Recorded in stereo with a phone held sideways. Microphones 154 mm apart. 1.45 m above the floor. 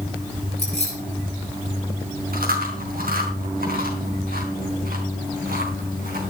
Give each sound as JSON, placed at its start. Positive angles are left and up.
{"t": 0.6, "sound": "keys jangling", "side_deg": -45, "distance_m": 10.0}
{"t": 2.3, "sound": "chewing", "side_deg": -70, "distance_m": 4.0}